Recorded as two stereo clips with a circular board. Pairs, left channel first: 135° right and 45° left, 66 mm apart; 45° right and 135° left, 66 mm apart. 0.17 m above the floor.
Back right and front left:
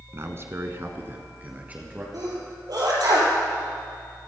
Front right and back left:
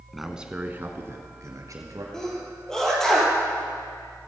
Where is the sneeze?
35° left, 5 m.